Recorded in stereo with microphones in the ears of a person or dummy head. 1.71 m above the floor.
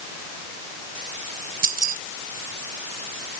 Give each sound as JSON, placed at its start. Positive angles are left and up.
{"t": 1.6, "sound": "keys jangling", "side_deg": -50}